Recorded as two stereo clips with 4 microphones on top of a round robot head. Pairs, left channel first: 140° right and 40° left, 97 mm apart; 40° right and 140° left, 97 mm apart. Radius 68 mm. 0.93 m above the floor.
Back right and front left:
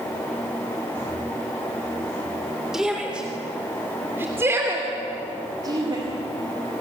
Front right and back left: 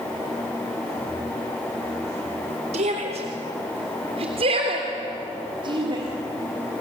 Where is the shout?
125° left, 3.5 m; by 6.0 s 90° left, 3 m.